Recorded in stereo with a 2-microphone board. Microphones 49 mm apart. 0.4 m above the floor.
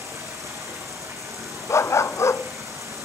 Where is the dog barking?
70° left (ahead or behind), 0.8 m.